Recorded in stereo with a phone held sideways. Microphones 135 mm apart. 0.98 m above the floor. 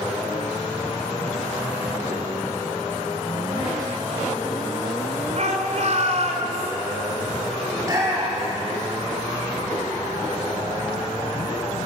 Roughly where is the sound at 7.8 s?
Right.